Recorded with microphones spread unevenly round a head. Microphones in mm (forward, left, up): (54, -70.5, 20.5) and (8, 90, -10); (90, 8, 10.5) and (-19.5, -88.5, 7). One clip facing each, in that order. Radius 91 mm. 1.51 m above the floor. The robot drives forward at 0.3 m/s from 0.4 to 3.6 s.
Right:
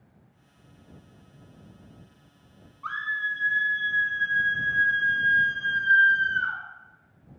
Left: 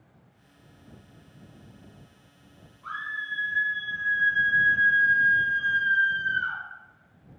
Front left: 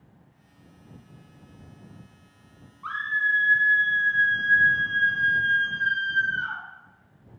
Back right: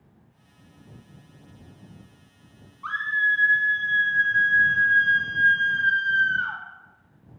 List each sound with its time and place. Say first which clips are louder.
2.8 s a scream: right 4 dB, back right 2 dB; 95° right, 0.6 m; by 6.6 s 115° right, 0.6 m